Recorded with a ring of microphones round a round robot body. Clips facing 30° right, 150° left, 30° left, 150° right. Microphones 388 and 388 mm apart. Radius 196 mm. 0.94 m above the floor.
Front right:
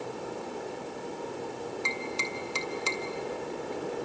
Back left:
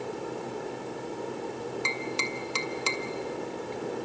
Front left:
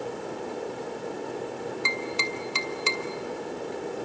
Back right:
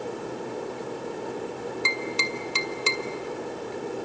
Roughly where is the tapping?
Behind.